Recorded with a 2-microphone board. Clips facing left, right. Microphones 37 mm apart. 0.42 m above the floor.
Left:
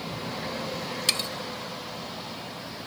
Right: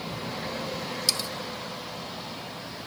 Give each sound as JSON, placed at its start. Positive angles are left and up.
{"t": 1.1, "sound": "cutlery clinking", "side_deg": 50}